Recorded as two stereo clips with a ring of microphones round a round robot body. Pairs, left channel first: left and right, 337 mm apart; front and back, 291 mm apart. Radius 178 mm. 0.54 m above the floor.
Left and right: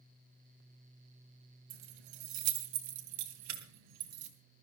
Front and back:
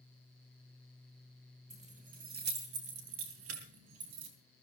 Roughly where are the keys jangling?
Right.